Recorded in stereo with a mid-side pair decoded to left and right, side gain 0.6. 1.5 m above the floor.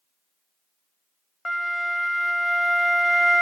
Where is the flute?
15° left, 0.7 m.